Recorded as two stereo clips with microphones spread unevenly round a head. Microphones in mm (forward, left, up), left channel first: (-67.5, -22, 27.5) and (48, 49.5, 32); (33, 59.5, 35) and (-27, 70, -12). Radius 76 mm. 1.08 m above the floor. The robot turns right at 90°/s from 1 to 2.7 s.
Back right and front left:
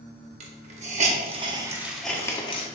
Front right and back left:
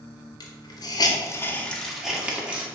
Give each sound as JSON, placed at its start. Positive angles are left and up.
{"t": 0.4, "sound": "a hiss", "azimuth_deg": 35, "distance_m": 0.8}